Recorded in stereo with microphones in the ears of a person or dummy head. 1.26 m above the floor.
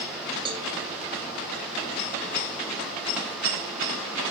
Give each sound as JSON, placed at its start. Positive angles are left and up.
{"t": 0.5, "sound": "a cowbell", "side_deg": -30, "distance_m": 1.6}